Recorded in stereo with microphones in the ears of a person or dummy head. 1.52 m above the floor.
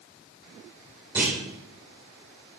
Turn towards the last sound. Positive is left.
turn(degrees=-10)  # may be behind; listen again after turning